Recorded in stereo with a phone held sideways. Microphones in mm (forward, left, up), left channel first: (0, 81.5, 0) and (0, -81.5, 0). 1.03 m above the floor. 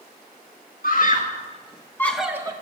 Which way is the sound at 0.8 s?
60° left (ahead or behind).